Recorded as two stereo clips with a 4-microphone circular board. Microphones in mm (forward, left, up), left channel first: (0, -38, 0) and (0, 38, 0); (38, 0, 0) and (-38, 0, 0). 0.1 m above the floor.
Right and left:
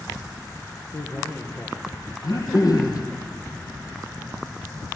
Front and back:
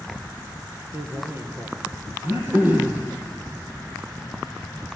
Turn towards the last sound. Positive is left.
turn(degrees=-120)